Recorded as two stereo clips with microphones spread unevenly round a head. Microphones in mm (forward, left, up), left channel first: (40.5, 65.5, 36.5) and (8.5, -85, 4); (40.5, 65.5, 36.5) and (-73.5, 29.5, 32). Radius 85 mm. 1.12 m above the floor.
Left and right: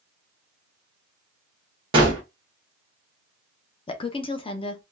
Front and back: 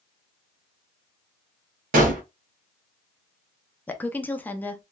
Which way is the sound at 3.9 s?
70° left.